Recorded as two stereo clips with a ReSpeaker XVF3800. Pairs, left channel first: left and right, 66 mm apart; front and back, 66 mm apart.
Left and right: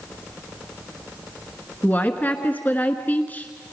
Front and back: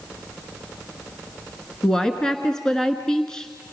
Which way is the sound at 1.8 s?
70° left.